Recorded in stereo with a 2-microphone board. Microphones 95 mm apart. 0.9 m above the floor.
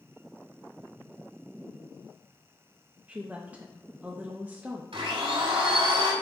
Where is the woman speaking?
15° right (ahead or behind), 0.6 m.